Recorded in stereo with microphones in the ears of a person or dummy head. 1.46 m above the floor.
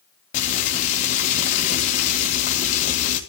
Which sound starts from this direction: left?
Frying, at 0.3 s.